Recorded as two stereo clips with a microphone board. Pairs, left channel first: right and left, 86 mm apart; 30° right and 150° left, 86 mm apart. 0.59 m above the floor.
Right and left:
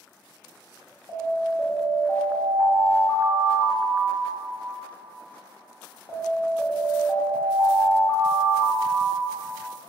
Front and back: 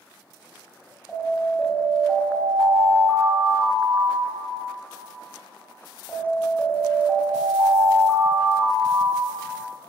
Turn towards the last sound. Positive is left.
turn(degrees=-105)